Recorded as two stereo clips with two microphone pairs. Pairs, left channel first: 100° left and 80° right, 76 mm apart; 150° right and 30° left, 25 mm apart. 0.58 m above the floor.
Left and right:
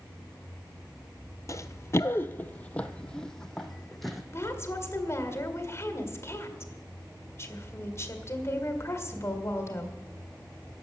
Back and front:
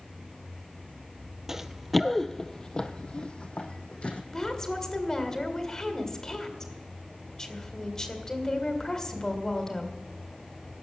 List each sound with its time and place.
1.5 s running footsteps: 95° left, 0.7 m; by 4.2 s 170° right, 1.6 m
4.3 s a woman speaking: 150° left, 2.0 m